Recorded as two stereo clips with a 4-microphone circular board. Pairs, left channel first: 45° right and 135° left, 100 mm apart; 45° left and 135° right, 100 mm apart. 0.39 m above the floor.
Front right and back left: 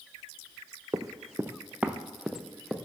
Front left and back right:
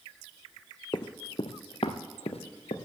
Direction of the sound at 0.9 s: 85° left.